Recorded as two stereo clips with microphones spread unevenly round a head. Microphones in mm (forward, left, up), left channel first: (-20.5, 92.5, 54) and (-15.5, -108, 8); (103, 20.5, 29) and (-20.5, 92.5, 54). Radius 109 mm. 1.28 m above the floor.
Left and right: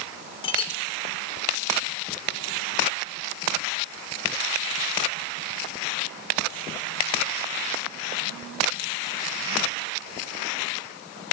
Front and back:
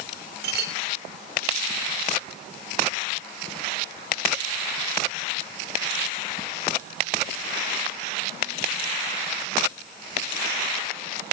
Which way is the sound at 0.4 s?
155° left.